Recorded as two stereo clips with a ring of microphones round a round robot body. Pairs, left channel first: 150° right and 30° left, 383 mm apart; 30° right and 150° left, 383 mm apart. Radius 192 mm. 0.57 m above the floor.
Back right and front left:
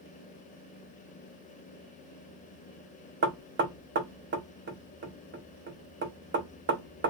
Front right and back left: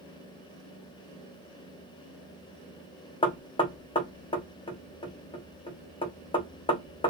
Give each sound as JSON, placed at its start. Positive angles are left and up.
{"t": 3.2, "sound": "knocking", "azimuth_deg": 30, "distance_m": 0.7}